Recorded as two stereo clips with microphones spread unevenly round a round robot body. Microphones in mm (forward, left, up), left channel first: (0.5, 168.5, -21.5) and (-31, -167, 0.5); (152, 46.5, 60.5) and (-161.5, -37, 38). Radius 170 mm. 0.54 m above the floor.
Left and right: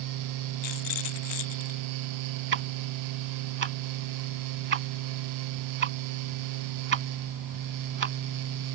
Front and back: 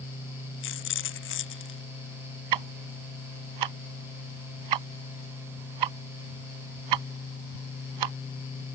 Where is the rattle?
70° left.